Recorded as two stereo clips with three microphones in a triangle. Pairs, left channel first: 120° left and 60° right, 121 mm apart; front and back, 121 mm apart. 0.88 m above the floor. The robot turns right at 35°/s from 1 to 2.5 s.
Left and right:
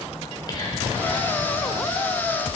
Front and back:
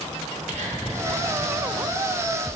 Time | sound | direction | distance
0.2 | whispering | 175° left | 4.5 m